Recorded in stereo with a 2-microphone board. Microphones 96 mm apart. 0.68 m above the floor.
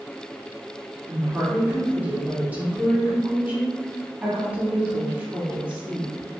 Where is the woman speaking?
15° right (ahead or behind), 1.4 m.